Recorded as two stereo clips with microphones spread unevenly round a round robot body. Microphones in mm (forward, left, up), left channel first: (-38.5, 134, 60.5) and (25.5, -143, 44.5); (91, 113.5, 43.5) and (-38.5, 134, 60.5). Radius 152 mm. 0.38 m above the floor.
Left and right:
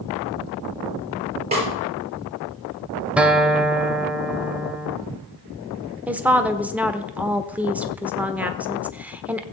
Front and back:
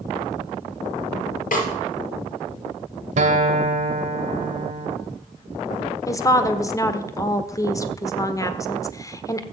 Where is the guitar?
160° right, 1.4 m.